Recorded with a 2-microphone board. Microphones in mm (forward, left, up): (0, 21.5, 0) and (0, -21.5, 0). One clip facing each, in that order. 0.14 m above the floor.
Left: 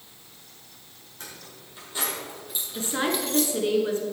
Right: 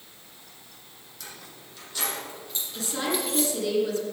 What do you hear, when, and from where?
1.2 s keys jangling: 35° left (ahead or behind), 4 m; by 3.5 s 20° right (ahead or behind), 2.5 m
2.8 s a woman speaking: 35° left (ahead or behind), 1.9 m